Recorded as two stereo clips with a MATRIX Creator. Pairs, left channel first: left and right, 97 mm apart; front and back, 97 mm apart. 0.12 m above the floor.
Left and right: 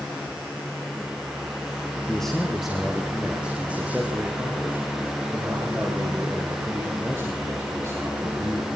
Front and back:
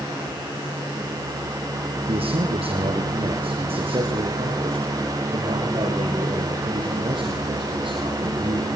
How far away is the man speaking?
About 4 m.